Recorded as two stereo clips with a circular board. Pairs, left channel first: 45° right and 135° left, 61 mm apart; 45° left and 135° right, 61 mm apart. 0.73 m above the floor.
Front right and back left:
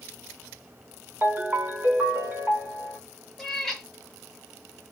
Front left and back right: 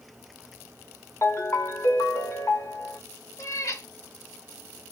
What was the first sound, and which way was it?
A ringtone, 80° left.